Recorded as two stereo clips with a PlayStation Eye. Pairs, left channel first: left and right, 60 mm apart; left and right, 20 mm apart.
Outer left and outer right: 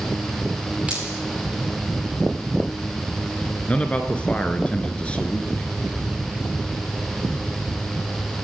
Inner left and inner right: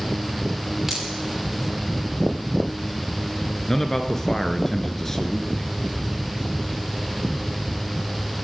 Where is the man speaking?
20° left (ahead or behind), 1.2 m.